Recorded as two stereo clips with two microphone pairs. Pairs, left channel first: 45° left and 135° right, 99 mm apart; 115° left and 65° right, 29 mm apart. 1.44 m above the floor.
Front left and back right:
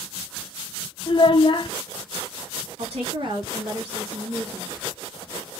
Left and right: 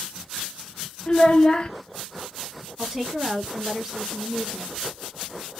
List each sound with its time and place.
1.1 s a child speaking: 65° left, 0.6 m
2.8 s a woman speaking: 130° right, 1.9 m